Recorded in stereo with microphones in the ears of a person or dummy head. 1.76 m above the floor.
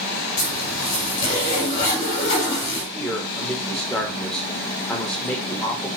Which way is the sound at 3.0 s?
10° left (ahead or behind).